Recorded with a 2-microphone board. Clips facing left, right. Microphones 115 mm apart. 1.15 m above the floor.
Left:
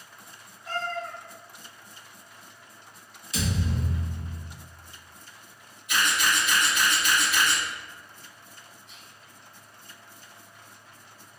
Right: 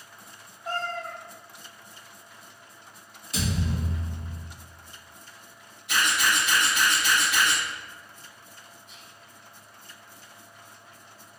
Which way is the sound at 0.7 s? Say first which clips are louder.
Even; 50° right (ahead or behind).